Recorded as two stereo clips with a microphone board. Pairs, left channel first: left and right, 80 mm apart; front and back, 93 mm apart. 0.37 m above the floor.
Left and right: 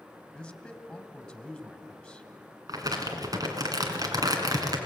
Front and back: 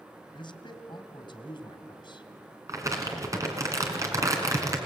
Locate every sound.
0.3 s a man speaking: 10° left, 2.5 m
2.7 s crumpling: 125° right, 2.5 m